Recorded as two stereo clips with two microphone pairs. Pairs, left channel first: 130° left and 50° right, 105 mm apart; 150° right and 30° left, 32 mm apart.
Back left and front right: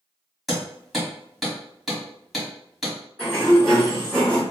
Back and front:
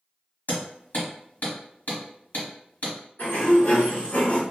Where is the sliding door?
145° right, 1.6 m.